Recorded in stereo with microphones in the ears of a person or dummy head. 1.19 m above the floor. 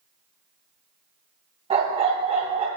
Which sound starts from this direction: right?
A dog barking, at 1.7 s.